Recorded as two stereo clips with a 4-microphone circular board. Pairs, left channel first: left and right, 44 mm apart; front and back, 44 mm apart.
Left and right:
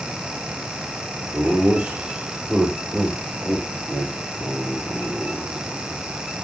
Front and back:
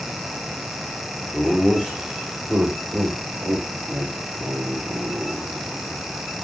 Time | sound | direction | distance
1.3 | laughter | 70° right | 1.3 m